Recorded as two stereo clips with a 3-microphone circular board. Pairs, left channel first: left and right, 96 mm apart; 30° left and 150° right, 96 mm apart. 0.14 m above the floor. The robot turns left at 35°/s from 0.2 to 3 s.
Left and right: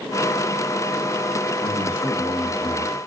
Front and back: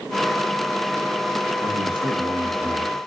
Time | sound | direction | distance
1.6 | a man speaking | 145° right | 4.5 m